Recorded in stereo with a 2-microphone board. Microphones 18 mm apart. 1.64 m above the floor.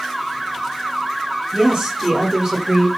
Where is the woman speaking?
85° right, 1.6 m; by 2.9 s 40° right (ahead or behind), 1.2 m.